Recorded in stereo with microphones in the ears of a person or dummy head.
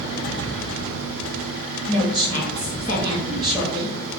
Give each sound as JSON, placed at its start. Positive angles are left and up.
{"t": 1.9, "sound": "a woman speaking", "side_deg": -20, "distance_m": 0.7}